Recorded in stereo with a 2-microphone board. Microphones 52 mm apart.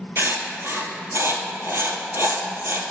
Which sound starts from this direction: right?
Writing, at 0.2 s.